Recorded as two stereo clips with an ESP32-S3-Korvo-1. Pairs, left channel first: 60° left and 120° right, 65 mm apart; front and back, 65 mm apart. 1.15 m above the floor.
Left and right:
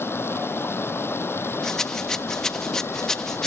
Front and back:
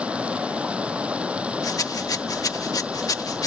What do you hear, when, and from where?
0.0 s running water: 110° left
1.6 s a rattle: 20° right